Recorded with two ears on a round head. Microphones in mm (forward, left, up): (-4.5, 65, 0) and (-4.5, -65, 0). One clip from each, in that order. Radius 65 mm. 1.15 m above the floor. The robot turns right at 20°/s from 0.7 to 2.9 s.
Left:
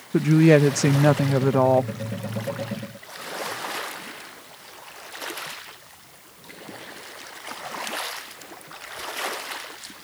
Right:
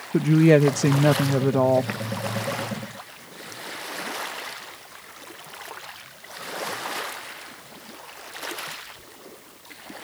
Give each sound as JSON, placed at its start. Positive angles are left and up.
{"t": 0.1, "sound": "a woman speaking", "side_deg": 15}